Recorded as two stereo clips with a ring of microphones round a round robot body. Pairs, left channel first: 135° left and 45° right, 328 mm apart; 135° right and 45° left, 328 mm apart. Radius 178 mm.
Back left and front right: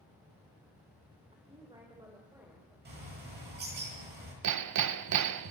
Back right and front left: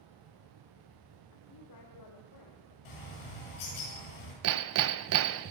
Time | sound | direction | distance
1.3 | a woman speaking | 115° right | 2.5 m
2.9 | a bird | 105° right | 9.5 m
4.4 | hammering | 5° right | 0.8 m